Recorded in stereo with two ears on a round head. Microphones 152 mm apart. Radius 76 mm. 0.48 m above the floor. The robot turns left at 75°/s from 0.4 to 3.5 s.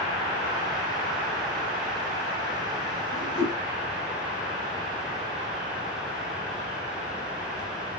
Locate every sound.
3.1 s a whoosh: 50° left (ahead or behind), 6 m; by 3.6 s 80° left, 6 m